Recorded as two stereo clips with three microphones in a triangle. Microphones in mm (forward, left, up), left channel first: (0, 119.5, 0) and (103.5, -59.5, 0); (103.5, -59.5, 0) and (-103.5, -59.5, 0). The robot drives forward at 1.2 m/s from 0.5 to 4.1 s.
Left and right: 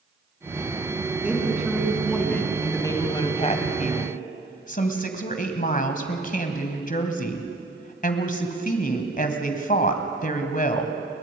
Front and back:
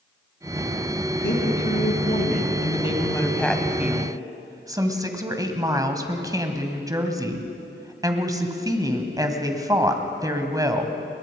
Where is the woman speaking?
20° left, 3.5 m; by 10.9 s 115° left, 1.9 m.